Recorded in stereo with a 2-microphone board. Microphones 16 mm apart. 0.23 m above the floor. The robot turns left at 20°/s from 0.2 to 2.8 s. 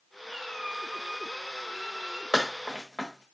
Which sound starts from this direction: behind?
A squeak, at 0.2 s.